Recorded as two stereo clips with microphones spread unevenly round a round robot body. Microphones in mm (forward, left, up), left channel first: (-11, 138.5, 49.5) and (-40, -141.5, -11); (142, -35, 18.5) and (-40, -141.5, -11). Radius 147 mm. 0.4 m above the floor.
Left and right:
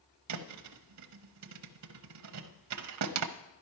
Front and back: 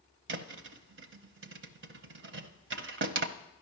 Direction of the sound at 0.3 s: 120° right.